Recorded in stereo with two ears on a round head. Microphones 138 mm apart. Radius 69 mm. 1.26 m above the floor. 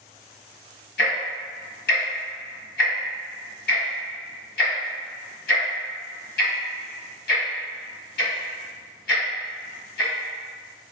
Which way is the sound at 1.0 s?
70° left (ahead or behind).